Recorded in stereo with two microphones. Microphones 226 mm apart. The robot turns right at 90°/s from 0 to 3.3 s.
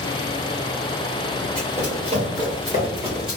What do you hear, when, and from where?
1.6 s running footsteps: 5° left (ahead or behind), 1.9 m; by 3.4 s centre (ahead or behind), 1.3 m